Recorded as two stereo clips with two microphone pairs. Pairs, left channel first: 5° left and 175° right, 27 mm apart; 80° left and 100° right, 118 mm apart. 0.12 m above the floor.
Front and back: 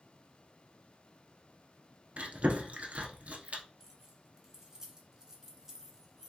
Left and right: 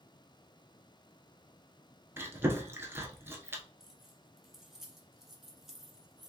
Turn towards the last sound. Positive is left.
turn(degrees=175)